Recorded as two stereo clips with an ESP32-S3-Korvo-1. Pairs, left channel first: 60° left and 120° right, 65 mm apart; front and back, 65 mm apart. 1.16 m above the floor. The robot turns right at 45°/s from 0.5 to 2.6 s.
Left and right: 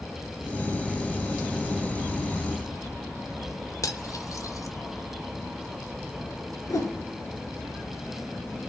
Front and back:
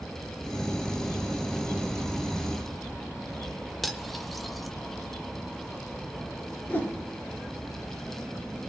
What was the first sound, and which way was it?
Cutlery clinking, 90° left.